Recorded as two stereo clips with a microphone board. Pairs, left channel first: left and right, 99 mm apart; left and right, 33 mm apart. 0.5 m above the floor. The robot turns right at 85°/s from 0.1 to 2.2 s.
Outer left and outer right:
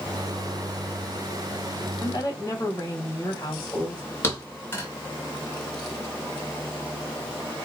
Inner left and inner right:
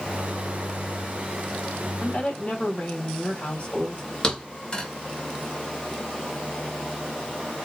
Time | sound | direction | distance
2.0 | a woman speaking | 45° left (ahead or behind) | 3 m
4.2 | a thud | 25° left (ahead or behind) | 2.5 m